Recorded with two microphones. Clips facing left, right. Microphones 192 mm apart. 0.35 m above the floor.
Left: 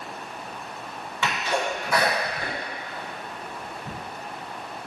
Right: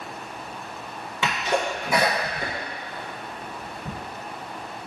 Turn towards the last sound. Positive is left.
turn(degrees=-20)  # may be behind; listen again after turning